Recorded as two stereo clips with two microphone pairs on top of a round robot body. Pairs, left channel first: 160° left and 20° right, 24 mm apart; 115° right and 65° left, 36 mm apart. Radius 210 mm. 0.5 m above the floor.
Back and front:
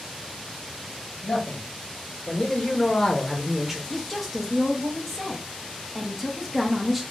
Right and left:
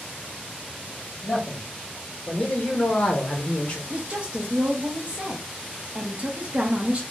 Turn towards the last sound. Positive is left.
turn(degrees=65)